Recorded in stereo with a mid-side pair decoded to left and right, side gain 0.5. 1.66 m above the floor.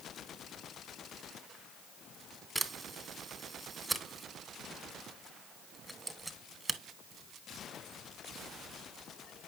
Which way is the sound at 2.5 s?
10° right.